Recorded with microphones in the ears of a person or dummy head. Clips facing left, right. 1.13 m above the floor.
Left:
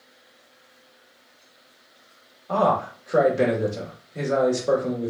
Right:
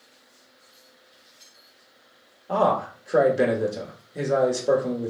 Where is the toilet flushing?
No toilet flushing in this recording.